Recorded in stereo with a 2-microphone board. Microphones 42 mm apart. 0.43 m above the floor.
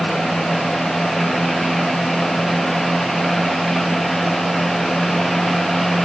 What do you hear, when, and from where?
Only background noise.